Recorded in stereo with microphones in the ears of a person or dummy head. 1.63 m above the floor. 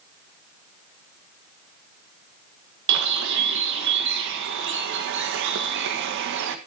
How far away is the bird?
About 1.4 m.